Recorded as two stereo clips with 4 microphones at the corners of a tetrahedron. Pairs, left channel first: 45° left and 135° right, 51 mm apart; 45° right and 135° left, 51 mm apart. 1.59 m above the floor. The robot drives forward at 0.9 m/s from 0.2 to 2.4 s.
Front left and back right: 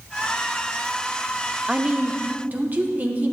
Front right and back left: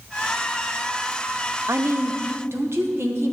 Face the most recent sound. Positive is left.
turn(degrees=170)